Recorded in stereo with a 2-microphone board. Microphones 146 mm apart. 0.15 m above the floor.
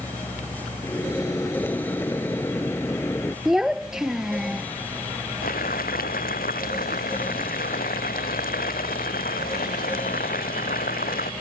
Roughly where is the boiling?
Left.